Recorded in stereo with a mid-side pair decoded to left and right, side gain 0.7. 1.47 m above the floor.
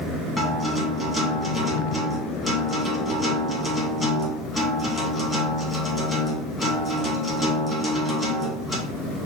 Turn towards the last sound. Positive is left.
turn(degrees=15)